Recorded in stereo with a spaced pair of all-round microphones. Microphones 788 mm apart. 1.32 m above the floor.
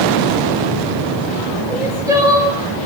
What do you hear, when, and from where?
1.7 s crying: 65° right (ahead or behind), 4 m